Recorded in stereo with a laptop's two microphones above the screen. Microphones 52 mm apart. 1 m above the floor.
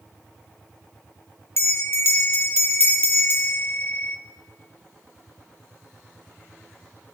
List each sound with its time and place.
1.6 s a bell: 50° left (ahead or behind), 1.1 m